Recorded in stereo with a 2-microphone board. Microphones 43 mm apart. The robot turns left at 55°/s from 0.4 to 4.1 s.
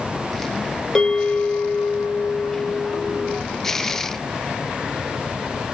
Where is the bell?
165° left, 1.1 m; by 3.4 s 30° left, 1.1 m.